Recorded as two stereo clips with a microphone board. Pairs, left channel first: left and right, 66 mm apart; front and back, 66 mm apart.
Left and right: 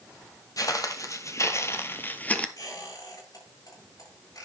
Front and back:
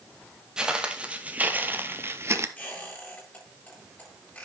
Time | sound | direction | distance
0.6 | footsteps | 100° left | 1.4 m
2.6 | a squeak | 65° left | 8 m